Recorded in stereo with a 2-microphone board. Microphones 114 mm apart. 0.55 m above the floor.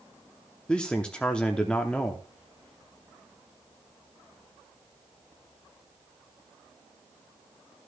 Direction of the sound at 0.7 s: 10° left (ahead or behind).